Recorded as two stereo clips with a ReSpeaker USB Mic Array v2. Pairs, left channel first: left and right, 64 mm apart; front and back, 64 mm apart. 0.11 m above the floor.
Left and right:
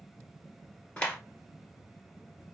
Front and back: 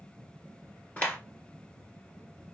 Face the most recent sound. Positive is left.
turn(degrees=35)